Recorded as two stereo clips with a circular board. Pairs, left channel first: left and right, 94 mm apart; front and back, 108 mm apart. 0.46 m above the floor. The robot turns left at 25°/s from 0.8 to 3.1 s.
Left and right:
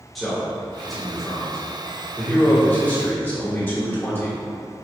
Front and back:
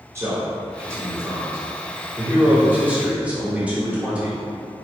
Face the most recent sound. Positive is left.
turn(degrees=120)